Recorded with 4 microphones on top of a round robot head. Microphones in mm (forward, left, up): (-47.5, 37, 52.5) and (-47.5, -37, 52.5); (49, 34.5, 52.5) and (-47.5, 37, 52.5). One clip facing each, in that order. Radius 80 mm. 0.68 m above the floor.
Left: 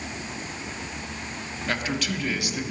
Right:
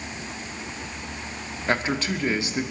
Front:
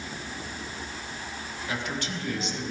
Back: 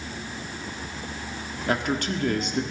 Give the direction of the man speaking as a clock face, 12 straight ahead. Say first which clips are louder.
Right 4 dB, back 7 dB; 5 o'clock.